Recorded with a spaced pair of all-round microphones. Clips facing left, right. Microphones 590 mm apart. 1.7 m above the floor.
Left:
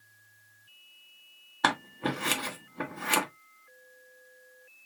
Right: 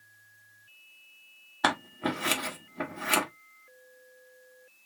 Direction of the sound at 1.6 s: 5° right (ahead or behind).